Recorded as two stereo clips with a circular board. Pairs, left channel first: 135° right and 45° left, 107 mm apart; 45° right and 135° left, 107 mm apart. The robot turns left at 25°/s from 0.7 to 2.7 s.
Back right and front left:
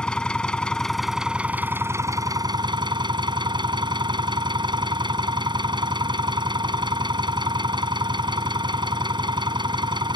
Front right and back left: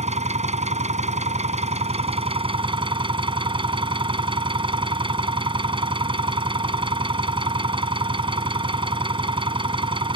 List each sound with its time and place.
0.0 s an engine running: 145° left; by 10.2 s 95° left